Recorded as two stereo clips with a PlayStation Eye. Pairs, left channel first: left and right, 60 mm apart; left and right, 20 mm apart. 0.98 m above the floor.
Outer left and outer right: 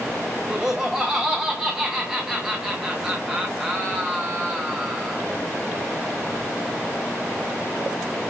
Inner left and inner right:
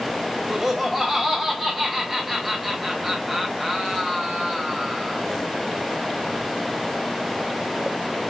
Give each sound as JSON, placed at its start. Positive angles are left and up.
{"t": 0.5, "sound": "laughter", "side_deg": -10, "distance_m": 0.6}